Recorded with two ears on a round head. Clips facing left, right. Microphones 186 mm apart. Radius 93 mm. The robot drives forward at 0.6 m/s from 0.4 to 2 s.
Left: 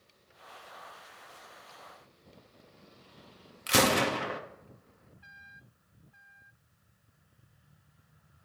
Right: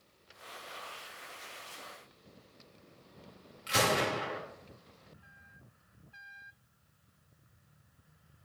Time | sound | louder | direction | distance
3.7 | a gunshot | left 4 dB | 65° left (ahead or behind) | 1.0 m